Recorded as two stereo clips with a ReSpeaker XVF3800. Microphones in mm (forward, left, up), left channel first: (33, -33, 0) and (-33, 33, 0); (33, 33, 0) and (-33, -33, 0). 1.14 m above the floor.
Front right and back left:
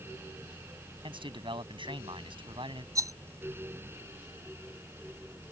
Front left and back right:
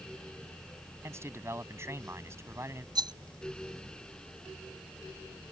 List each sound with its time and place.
1.0 s a man speaking: 165° left
3.0 s a rattle: 175° right